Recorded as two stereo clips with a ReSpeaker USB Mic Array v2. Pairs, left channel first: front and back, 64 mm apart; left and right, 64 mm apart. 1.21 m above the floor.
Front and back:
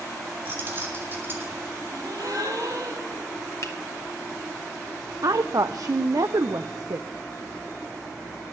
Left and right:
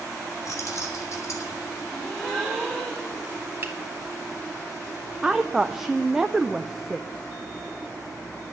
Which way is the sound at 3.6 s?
35° right.